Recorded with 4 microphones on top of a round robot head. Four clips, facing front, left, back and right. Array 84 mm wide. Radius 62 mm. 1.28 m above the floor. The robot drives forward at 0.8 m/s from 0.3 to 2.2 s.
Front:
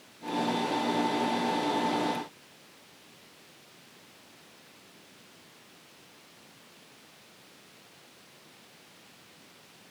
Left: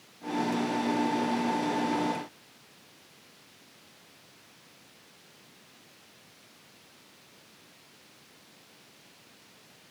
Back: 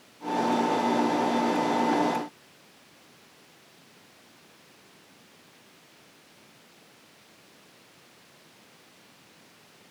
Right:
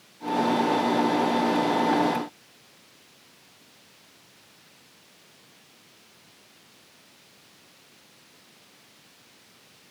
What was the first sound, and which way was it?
Only background noise.